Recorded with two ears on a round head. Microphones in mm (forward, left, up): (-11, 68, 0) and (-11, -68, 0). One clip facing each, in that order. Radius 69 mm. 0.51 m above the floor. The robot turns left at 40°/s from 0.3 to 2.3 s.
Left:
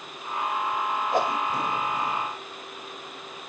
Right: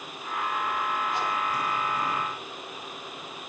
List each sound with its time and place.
1.1 s a whoosh: 50° left (ahead or behind), 1.3 m; by 1.5 s 60° left (ahead or behind), 1.3 m